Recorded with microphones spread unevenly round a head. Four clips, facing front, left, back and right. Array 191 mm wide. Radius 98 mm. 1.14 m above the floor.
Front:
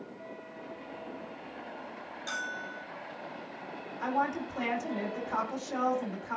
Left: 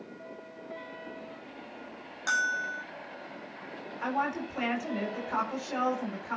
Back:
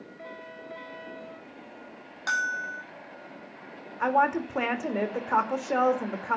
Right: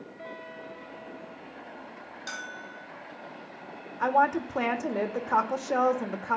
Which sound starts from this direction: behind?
A bell, at 2.3 s.